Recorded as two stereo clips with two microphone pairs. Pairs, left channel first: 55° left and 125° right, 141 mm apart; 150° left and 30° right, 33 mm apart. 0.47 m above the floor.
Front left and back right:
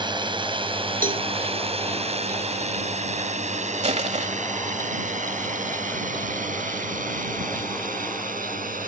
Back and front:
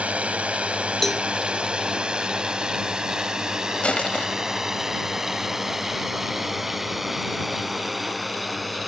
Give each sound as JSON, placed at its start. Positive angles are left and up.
{"t": 0.0, "sound": "a drone", "azimuth_deg": -70}
{"t": 1.0, "sound": "a cowbell", "azimuth_deg": -125}
{"t": 3.8, "sound": "crushing", "azimuth_deg": -160}